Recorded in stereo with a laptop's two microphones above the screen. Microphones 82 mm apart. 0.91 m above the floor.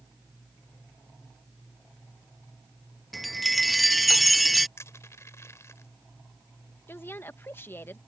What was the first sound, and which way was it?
A chime, centre (ahead or behind).